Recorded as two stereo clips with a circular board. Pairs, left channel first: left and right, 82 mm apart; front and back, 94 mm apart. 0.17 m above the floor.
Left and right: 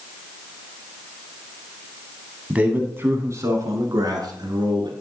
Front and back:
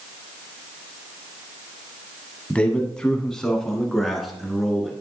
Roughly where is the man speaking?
Ahead right.